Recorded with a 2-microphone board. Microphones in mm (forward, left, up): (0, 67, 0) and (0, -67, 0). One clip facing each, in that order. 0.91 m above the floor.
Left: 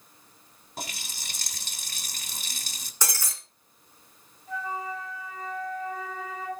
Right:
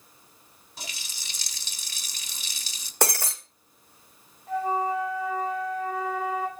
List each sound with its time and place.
0.8 s a running tap: 60° left (ahead or behind), 1.9 m
3.0 s breaking glass: 65° right (ahead or behind), 2 m
4.5 s a flute: 75° right (ahead or behind), 4 m